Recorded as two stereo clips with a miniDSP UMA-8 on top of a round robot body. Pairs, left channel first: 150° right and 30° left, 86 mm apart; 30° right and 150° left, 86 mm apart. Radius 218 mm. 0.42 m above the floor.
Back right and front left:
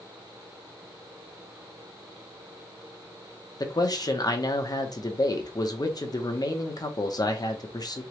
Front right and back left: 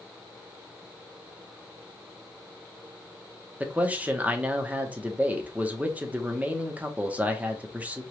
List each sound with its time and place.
3.6 s a man speaking: 140° right, 1.2 m